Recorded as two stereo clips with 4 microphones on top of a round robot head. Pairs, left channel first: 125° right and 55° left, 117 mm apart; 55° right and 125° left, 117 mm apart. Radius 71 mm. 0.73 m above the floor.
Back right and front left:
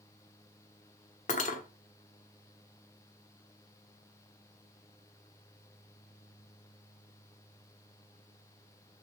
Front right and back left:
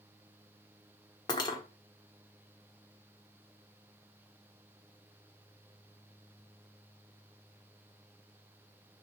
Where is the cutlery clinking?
110° right, 1.3 m.